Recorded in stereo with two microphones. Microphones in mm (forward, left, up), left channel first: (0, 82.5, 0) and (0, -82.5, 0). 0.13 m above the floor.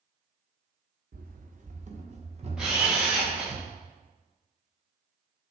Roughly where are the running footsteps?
Right.